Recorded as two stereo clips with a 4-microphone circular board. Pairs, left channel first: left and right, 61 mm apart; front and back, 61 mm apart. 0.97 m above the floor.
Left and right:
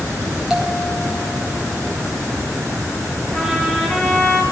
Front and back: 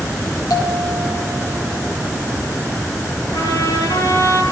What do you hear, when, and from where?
0.5 s a bell: 10° right, 5.5 m
3.3 s a trumpet: 10° left, 7 m